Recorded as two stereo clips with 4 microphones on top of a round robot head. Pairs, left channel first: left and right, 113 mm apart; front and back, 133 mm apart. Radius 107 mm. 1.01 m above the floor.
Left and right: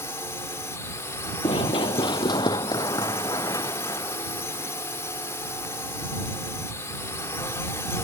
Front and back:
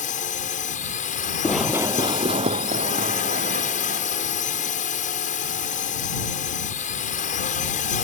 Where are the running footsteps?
80° left; by 6.5 s 155° left.